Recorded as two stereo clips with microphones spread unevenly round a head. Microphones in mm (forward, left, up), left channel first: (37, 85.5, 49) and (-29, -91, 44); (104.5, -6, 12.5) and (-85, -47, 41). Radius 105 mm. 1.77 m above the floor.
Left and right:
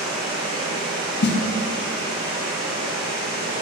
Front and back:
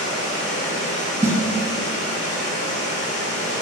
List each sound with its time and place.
0.0 s running water: 45° right, 1.4 m
1.2 s a snare drum: 110° left, 0.6 m